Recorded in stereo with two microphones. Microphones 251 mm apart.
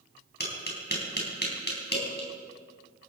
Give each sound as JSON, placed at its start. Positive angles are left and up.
{"t": 0.4, "sound": "tapping", "side_deg": 40, "distance_m": 4.5}